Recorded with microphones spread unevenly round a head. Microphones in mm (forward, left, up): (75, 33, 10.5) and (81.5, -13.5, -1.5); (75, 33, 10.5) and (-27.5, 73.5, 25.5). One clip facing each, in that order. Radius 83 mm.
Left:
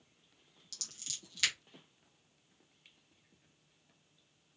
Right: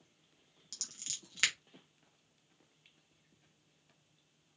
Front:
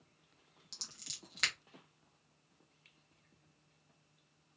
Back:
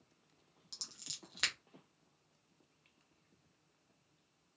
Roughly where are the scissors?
Behind right.